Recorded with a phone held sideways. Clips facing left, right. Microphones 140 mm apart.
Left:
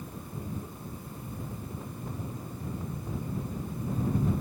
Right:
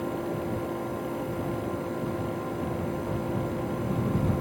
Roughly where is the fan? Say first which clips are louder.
Right 11 dB; right.